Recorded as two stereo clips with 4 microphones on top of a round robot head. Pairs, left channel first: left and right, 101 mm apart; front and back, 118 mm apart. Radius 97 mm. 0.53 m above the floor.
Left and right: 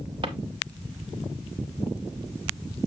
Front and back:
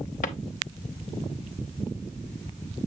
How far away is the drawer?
About 0.9 m.